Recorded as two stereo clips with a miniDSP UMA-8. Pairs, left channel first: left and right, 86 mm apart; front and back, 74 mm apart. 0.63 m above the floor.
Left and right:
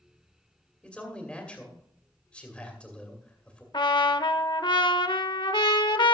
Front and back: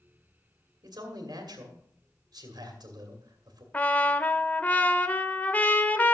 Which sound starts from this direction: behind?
A man speaking, at 0.8 s.